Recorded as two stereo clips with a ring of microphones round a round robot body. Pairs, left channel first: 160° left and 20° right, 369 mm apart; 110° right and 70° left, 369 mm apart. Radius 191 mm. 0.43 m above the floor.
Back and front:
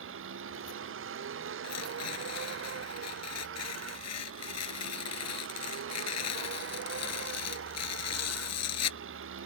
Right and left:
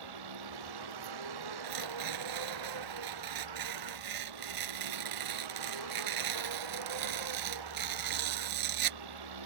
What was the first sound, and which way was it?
A vehicle, 35° left.